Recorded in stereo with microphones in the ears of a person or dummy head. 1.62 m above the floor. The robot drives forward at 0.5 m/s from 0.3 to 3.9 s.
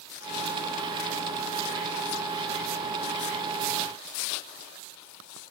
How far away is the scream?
No scream in this recording.